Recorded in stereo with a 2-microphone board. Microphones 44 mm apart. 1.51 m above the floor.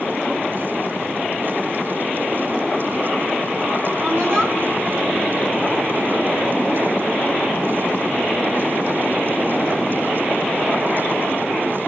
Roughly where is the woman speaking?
Right.